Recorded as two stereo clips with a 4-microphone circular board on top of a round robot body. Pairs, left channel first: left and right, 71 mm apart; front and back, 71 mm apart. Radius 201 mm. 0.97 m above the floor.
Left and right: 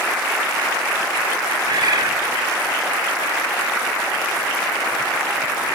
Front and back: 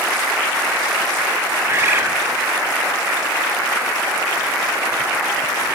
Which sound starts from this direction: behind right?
A bird, at 1.7 s.